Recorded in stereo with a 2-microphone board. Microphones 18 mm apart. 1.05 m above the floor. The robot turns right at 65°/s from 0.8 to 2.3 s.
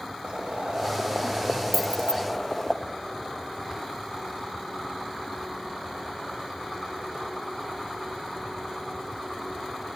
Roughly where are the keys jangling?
Centre.